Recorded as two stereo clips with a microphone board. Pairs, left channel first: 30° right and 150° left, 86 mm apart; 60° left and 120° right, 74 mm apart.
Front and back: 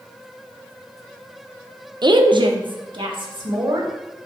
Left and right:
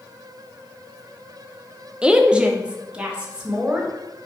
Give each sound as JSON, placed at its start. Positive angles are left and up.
{"t": 2.0, "sound": "a woman speaking", "azimuth_deg": 165, "distance_m": 0.5}